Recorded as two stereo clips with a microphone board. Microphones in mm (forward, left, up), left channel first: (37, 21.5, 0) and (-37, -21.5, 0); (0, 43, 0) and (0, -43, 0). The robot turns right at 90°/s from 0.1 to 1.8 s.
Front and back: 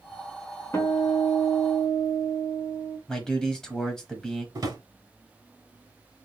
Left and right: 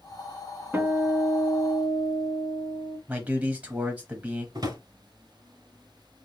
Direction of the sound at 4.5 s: 115° right.